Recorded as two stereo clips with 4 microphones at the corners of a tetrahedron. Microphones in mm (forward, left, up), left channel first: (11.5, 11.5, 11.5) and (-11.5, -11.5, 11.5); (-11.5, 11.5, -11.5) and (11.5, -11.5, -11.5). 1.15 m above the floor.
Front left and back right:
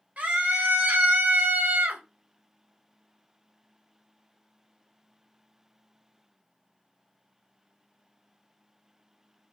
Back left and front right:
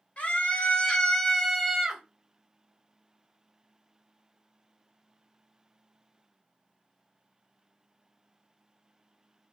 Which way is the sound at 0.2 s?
175° right.